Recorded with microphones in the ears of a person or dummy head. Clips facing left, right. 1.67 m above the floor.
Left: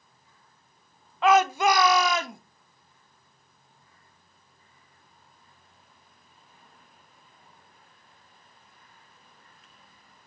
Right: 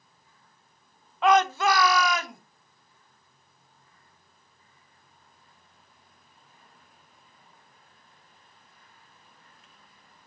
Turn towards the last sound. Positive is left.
turn(degrees=35)  # may be behind; listen again after turning